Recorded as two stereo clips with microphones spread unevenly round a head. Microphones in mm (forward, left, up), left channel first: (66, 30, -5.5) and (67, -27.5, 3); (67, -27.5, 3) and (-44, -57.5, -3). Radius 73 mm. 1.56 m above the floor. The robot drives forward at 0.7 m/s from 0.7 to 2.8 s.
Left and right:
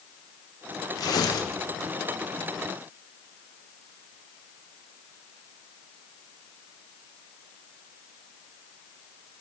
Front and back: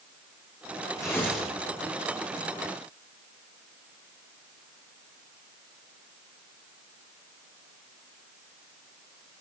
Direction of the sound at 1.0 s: 85° left.